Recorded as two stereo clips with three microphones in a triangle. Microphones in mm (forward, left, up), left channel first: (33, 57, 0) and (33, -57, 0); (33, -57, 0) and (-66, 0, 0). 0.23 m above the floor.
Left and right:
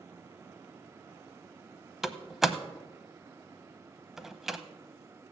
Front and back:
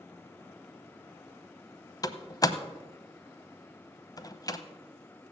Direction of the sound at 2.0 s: 5° right.